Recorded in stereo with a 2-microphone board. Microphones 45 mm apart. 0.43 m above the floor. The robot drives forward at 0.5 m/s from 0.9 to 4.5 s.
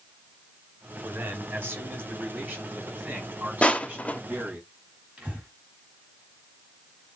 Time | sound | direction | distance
1.0 | a man speaking | 60° right (ahead or behind) | 3 m
3.6 | crushing | 30° left (ahead or behind) | 0.9 m
5.2 | breathing | 30° right (ahead or behind) | 3.5 m